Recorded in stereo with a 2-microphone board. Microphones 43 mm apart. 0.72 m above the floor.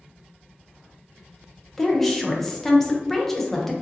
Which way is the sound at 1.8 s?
5° left (ahead or behind).